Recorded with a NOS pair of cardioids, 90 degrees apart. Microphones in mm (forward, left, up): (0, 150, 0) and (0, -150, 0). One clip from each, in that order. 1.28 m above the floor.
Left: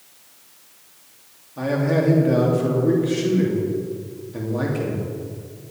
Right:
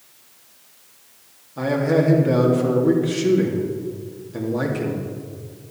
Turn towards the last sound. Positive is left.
turn(degrees=-20)